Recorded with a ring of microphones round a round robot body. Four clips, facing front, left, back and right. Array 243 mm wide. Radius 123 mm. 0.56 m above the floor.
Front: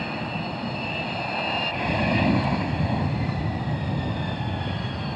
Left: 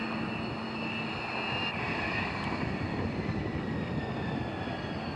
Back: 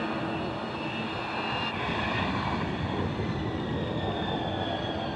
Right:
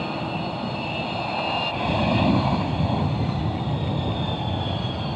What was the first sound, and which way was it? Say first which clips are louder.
An aircraft: right 7 dB, even; 55° right.